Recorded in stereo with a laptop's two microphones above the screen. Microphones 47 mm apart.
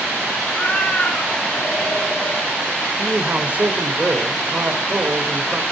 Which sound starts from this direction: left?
A cat meowing, at 0.4 s.